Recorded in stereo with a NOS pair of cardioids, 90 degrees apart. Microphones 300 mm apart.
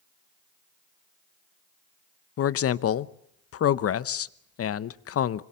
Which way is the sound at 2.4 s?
50° left.